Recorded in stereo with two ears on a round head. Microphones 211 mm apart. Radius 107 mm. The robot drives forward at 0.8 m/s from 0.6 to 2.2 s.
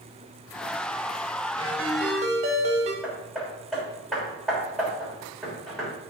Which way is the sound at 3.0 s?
Centre (ahead or behind).